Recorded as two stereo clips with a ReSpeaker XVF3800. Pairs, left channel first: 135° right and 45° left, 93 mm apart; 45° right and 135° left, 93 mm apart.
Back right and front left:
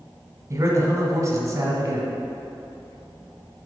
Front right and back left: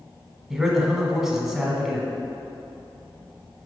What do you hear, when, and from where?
0.5 s a man speaking: 55° left, 1.3 m